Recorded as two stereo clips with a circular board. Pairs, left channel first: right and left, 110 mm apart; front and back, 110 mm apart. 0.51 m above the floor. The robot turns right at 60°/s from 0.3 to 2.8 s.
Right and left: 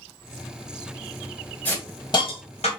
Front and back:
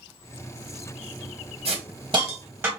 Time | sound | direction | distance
1.6 | a hiss | 170° right | 1.4 m